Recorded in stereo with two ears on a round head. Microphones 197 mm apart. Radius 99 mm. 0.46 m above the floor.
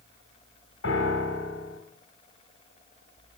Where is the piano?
65° left (ahead or behind), 2.5 m.